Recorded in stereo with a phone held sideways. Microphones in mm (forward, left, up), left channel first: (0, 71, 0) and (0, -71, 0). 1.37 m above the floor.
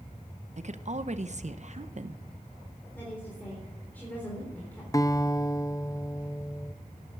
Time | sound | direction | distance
0.6 | a woman speaking | 55° right (ahead or behind) | 0.7 m
3.0 | a woman speaking | 15° left (ahead or behind) | 3.5 m
4.9 | a guitar | 25° left (ahead or behind) | 0.7 m